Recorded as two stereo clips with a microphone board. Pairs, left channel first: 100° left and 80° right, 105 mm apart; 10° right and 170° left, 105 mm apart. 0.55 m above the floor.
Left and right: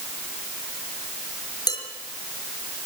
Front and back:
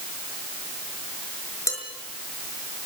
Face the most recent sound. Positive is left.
turn(degrees=50)